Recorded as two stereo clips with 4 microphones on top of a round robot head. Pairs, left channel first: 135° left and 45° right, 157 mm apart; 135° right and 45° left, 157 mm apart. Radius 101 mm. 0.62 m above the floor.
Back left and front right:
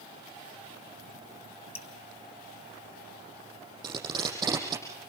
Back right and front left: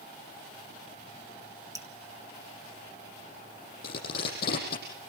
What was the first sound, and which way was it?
Dripping, 105° left.